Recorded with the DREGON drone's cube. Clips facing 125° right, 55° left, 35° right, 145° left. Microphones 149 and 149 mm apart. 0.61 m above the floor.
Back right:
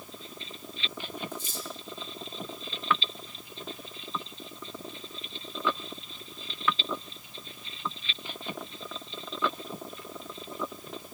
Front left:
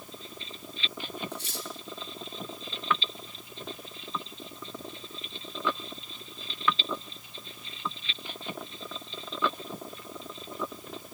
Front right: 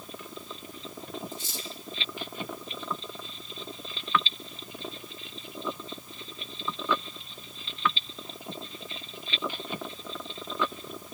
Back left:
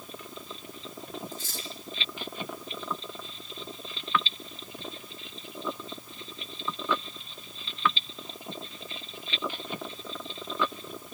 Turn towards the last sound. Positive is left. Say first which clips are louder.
# even, front right 1 dB
turn(degrees=35)